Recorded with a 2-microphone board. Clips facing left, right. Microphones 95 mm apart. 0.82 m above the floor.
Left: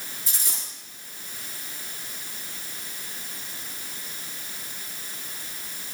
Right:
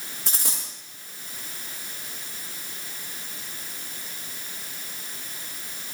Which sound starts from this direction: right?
A dropped coin, at 0.3 s.